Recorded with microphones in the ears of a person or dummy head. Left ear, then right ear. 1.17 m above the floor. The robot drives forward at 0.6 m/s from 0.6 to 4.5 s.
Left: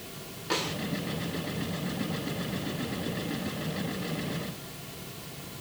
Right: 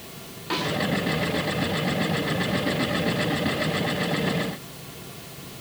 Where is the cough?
No cough in this recording.